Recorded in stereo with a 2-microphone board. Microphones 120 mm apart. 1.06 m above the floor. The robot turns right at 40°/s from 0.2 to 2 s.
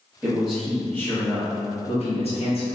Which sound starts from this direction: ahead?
A man speaking, at 0.2 s.